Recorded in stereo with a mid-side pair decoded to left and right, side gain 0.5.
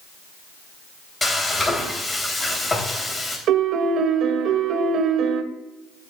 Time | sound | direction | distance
1.2 | frying | 20° left | 3 m
3.5 | a piano | 65° right | 1.2 m